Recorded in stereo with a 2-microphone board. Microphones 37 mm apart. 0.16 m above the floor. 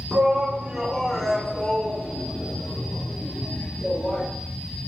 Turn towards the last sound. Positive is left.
turn(degrees=45)  # may be behind; listen again after turning